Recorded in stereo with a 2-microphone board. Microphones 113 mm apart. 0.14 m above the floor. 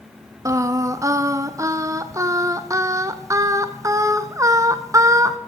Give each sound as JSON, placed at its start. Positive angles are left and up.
{"t": 0.5, "sound": "singing", "side_deg": -25, "distance_m": 0.5}